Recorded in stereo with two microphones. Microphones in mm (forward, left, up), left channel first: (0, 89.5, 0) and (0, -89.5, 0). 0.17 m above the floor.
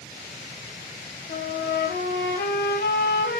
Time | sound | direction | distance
1.3 | a trumpet | 70° left (ahead or behind) | 4.5 m